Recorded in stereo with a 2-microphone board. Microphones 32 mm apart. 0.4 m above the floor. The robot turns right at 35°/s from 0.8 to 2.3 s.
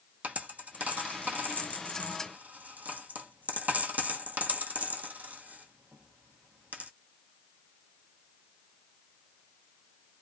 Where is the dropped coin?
50° right (ahead or behind), 0.9 m; by 6.9 s 60° right (ahead or behind), 0.9 m.